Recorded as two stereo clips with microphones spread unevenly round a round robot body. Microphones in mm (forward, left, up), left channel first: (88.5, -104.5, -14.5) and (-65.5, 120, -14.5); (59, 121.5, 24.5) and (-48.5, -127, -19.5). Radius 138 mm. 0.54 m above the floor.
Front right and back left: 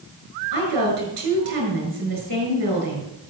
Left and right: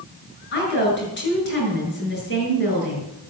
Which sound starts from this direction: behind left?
A woman speaking, at 0.5 s.